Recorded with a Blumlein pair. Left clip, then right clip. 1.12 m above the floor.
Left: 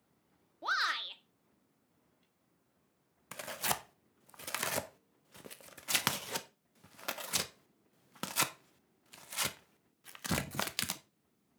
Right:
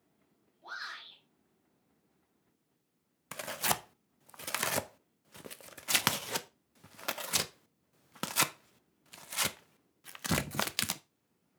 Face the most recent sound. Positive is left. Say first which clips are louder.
# right 3 dB
turn(degrees=-10)